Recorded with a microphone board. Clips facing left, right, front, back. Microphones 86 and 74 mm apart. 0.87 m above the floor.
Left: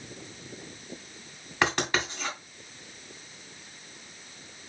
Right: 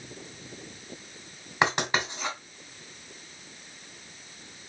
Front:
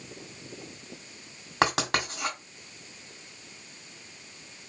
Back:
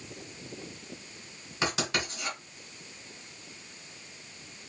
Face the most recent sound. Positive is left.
turn(degrees=-15)